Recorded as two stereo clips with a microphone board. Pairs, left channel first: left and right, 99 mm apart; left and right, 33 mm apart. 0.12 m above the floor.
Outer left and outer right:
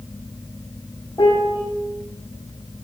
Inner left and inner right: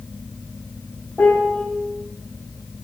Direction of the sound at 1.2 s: 40° left (ahead or behind).